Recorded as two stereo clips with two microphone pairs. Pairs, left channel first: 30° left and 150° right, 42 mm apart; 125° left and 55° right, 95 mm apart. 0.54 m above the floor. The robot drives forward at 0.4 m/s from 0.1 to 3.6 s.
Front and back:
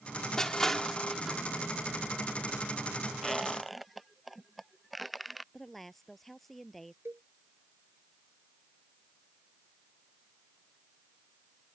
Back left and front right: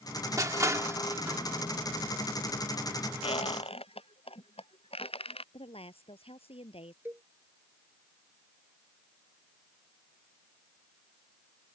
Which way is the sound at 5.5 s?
115° left.